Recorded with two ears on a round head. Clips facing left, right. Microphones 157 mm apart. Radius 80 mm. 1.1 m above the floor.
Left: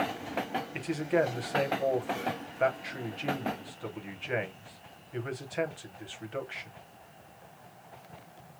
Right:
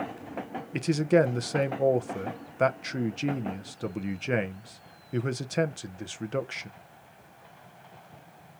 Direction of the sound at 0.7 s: 50° right (ahead or behind).